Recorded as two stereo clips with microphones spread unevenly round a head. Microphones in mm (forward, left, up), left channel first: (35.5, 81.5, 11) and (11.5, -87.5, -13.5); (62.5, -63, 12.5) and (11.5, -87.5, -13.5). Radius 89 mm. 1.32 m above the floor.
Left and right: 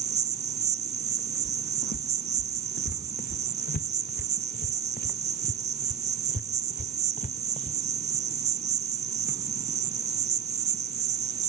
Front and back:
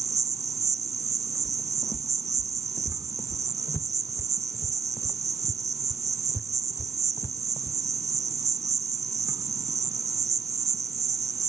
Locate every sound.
0.0 s an insect: 135° right
1.4 s footsteps: 80° left; by 7.8 s 35° left